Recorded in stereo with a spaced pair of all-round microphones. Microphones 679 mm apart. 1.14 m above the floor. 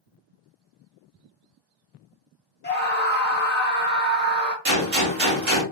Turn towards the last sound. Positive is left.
turn(degrees=-50)  # may be behind; listen again after turning